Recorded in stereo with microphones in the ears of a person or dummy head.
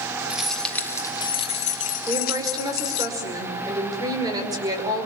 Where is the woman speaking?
15° right (ahead or behind), 5.5 m.